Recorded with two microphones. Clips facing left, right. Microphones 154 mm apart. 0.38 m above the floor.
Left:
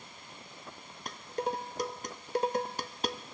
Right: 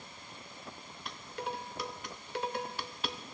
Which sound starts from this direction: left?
Dishes clattering, at 1.1 s.